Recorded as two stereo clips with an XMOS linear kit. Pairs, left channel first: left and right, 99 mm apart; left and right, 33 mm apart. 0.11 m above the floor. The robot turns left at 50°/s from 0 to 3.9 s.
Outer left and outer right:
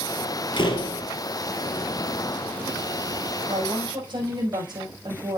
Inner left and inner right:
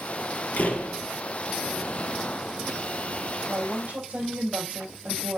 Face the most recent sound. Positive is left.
turn(degrees=-45)  # may be behind; listen again after turning